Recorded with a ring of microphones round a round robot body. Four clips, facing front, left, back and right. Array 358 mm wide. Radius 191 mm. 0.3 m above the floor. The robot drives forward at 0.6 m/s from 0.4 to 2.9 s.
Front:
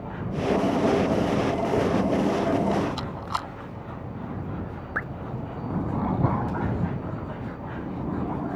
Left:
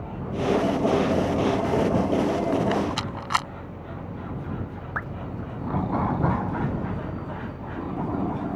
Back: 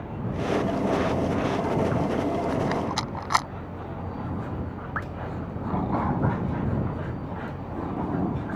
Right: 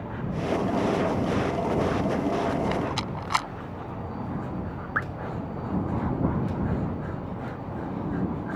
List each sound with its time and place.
2.5 s a rattle: 165° left
5.0 s dripping: 35° right